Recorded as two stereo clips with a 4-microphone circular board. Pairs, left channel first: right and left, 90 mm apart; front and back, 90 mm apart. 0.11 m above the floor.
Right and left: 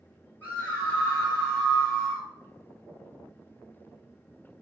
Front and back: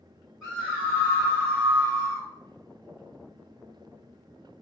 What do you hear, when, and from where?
0.4 s a scream: 95° right, 1.7 m; by 2.3 s 160° right, 2 m